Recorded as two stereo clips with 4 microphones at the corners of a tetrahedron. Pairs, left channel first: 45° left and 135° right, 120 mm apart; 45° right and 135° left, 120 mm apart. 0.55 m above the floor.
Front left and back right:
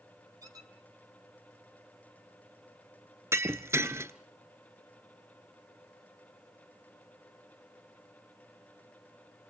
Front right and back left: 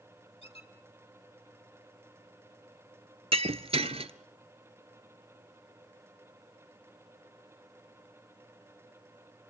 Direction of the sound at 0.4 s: 75° right.